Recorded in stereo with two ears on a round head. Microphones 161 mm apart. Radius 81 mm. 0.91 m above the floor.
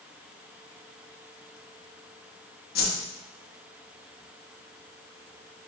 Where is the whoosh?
55° left (ahead or behind), 1.0 m.